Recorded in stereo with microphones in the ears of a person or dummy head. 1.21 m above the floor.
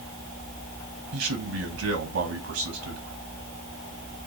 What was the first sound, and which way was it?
A man speaking, 75° right (ahead or behind).